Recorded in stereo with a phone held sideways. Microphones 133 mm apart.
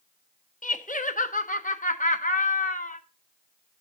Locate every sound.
0.6 s laughter: 80° left, 1.1 m